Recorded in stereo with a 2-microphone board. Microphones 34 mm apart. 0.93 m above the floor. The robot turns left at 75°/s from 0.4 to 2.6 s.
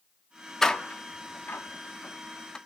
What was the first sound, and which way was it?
A door slam, 10° left (ahead or behind).